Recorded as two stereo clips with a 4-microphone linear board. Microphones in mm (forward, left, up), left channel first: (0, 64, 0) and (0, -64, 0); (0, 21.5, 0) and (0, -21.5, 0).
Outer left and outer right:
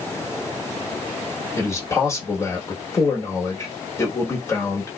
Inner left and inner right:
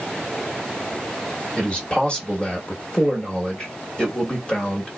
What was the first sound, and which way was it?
A man speaking, 20° left (ahead or behind).